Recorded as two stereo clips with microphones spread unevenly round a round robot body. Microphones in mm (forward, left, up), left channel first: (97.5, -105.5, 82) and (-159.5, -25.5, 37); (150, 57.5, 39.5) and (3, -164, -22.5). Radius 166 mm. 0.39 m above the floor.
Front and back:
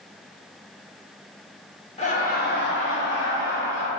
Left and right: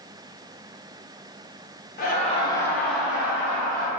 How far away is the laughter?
About 0.8 m.